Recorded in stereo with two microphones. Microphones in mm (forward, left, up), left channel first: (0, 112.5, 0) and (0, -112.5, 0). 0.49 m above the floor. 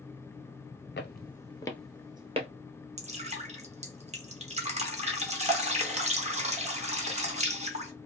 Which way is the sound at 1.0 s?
55° left (ahead or behind).